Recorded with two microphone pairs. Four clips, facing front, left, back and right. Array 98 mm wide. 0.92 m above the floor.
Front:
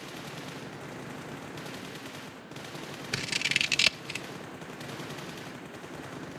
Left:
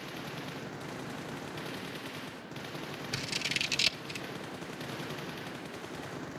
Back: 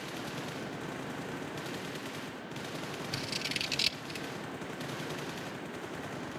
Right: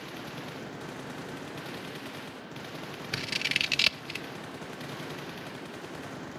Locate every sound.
3.1 s scissors: 35° right, 0.9 m